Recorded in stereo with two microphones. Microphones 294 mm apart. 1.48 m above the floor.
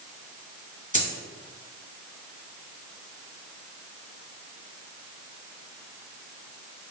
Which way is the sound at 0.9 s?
30° right (ahead or behind).